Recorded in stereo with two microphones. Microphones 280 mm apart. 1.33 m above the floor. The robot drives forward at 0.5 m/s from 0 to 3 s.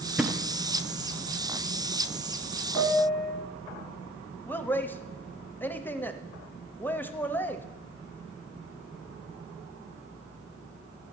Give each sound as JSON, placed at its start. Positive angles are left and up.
{"t": 0.2, "sound": "a thud", "side_deg": -5, "distance_m": 0.8}
{"t": 2.8, "sound": "a piano", "side_deg": 15, "distance_m": 2.0}
{"t": 4.5, "sound": "a man speaking", "side_deg": 5, "distance_m": 0.5}